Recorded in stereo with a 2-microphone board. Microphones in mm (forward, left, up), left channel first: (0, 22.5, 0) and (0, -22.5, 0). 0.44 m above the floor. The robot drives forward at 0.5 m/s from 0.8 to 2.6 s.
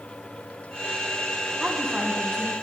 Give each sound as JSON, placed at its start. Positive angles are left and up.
{"t": 1.6, "sound": "a woman speaking", "side_deg": -15, "distance_m": 3.0}